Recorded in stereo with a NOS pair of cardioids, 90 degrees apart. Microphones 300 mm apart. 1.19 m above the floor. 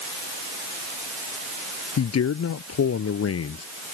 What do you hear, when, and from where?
2.0 s a man speaking: 55° left; by 3.6 s 50° left